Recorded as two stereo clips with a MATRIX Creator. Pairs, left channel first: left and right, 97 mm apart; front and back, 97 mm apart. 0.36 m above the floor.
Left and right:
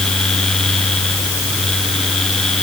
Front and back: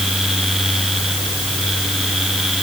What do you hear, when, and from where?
Only background noise.